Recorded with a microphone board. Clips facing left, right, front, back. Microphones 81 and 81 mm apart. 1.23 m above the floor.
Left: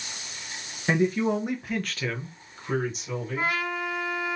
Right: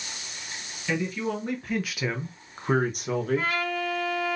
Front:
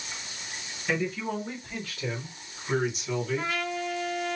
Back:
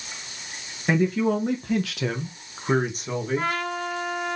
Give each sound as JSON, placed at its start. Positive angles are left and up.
{"t": 0.9, "sound": "a man speaking", "azimuth_deg": 140, "distance_m": 1.0}
{"t": 3.4, "sound": "a trumpet", "azimuth_deg": 160, "distance_m": 1.8}